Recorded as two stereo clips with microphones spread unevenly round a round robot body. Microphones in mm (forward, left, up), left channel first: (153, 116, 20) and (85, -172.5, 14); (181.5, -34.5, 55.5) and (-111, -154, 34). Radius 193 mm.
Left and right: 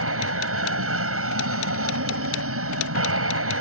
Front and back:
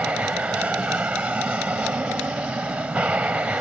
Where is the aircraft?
75° right.